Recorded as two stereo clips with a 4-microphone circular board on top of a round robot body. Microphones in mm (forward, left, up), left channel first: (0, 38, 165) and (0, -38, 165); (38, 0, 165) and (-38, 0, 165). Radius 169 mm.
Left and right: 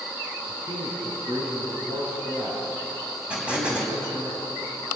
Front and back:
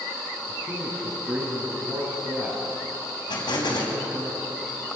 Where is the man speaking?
115° right, 6 m.